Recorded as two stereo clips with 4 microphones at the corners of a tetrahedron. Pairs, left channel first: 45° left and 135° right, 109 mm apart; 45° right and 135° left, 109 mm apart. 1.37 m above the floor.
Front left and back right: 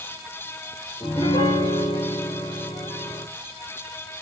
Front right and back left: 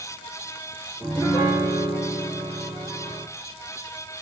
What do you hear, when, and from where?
1.0 s a piano: 80° left, 2.5 m